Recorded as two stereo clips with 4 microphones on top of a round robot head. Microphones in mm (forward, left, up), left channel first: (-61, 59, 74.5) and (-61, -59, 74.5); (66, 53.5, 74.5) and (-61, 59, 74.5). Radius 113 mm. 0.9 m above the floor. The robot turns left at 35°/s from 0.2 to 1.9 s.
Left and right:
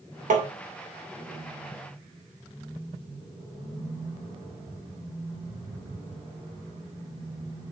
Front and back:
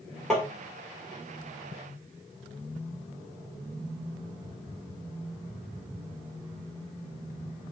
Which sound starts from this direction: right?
Tapping, at 0.3 s.